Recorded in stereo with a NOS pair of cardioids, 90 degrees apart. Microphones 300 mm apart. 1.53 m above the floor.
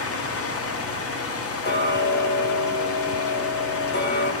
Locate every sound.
0.0 s a fan: 55° left, 0.8 m
1.6 s ticking: 35° left, 0.9 m